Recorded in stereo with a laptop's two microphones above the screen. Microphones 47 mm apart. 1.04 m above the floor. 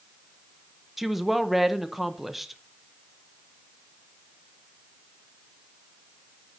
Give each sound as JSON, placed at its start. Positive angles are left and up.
{"t": 1.0, "sound": "a woman speaking", "side_deg": 0, "distance_m": 0.7}